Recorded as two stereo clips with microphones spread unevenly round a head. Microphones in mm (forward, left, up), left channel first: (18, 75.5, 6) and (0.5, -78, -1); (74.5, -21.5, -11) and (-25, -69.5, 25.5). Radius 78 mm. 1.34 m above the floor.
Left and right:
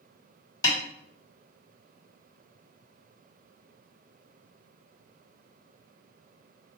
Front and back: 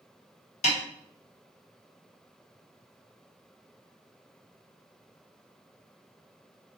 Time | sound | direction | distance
0.6 | a snare drum | 35° left | 1.4 m